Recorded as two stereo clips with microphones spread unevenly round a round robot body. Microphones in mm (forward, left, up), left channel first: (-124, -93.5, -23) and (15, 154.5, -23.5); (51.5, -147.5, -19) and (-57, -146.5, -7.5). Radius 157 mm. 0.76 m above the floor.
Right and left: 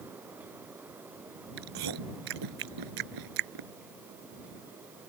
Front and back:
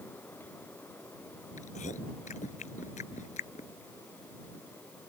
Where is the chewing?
45° left.